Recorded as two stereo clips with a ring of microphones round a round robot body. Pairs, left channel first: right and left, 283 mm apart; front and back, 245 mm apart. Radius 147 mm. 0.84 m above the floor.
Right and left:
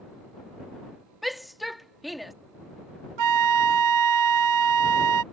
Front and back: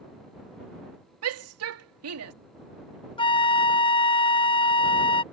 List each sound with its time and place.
1.2 s a shout: straight behind
3.2 s a flute: 70° left